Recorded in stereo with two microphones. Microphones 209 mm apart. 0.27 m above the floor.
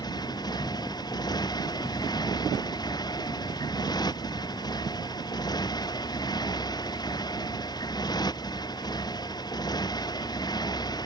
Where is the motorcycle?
20° left (ahead or behind).